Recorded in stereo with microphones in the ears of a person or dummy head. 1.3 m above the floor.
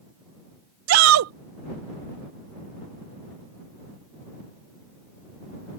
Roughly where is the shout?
Right.